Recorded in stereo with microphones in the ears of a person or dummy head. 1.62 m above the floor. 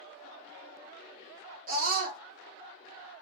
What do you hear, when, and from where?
1.7 s a scream: 55° right (ahead or behind), 1.4 m